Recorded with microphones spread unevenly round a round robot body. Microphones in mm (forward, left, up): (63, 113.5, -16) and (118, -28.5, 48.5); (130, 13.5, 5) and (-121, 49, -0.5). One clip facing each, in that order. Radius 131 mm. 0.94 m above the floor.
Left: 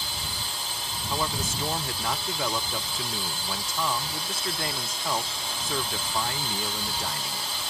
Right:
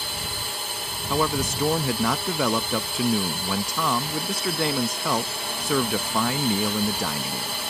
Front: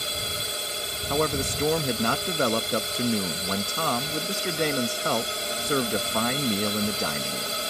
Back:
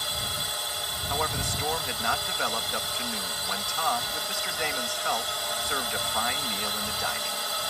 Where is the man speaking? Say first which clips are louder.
Right 7 dB, front 8 dB; 65° right.